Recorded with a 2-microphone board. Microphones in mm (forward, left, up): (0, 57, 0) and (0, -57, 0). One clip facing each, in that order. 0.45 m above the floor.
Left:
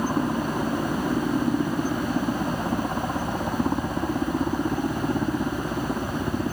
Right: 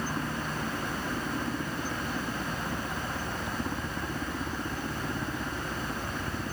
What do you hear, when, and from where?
0.0 s a helicopter: 45° left (ahead or behind)